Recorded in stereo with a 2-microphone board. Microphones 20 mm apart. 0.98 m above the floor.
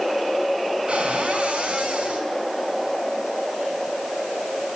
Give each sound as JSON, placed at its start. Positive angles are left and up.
{"t": 0.9, "sound": "a cupboard door", "side_deg": -80, "distance_m": 4.5}